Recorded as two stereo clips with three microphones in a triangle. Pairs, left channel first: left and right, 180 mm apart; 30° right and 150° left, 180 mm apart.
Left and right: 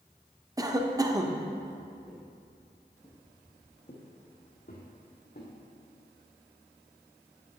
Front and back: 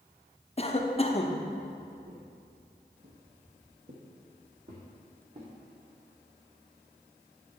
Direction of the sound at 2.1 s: 175° left.